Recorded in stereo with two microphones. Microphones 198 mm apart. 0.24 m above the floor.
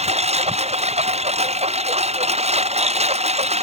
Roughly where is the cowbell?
I don't hear a cowbell.